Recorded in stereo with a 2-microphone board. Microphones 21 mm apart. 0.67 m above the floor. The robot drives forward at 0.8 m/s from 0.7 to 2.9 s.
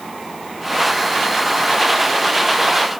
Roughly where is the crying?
I don't hear crying.